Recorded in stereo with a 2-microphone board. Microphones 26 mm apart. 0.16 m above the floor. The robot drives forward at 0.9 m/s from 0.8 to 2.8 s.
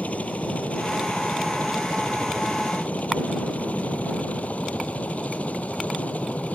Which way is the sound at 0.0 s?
70° left (ahead or behind).